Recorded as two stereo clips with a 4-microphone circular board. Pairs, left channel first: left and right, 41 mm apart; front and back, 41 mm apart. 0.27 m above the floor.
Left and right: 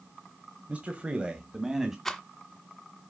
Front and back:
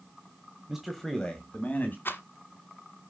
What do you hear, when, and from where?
0.7 s a man speaking: 110° right, 1.5 m; by 1.9 s 15° right, 2 m
2.0 s a rattle: 5° left, 1.2 m